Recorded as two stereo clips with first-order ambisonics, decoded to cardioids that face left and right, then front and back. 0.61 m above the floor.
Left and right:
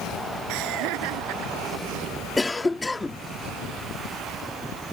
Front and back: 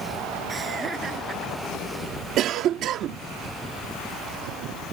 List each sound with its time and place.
0.5 s laughter: 105° right; by 2.1 s 110° right
2.4 s a cough: 165° left